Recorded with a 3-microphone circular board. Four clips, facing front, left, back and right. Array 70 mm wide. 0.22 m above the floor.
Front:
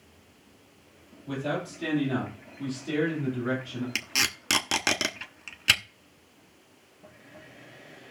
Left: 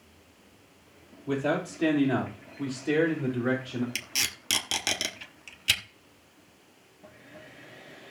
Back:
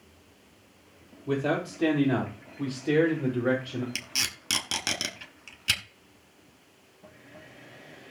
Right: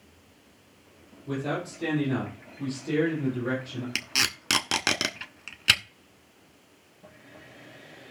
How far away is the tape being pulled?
About 1.0 m.